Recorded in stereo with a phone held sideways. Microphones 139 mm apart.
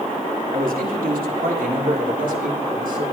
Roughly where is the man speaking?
Right.